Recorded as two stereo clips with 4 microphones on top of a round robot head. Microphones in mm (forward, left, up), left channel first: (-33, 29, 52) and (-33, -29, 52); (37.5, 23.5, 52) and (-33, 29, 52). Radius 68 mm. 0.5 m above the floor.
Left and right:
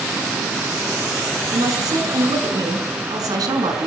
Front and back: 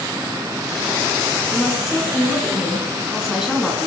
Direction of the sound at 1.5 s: 100° right.